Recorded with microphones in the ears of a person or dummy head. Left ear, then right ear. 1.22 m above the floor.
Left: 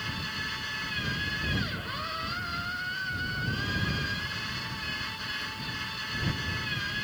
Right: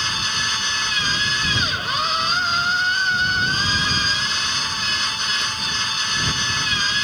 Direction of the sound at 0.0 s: 50° right (ahead or behind).